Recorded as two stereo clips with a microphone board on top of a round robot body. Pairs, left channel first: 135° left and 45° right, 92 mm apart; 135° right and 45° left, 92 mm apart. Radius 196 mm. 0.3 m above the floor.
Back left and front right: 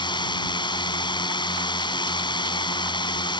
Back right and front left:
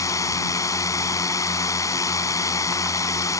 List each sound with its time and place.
0.0 s a drone: 170° left